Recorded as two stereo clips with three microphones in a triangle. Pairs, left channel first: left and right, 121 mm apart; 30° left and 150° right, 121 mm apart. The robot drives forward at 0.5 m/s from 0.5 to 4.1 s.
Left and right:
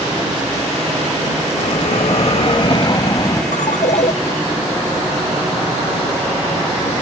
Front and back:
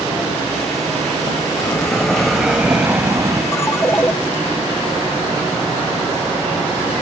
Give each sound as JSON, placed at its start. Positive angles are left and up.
{"t": 1.6, "sound": "a bell", "azimuth_deg": 85}
{"t": 3.5, "sound": "a ringtone", "azimuth_deg": 100}